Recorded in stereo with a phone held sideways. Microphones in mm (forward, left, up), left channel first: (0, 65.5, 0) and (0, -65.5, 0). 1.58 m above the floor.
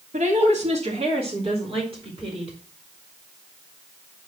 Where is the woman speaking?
65° right (ahead or behind), 2.5 m; by 2.6 s 40° right (ahead or behind), 5 m.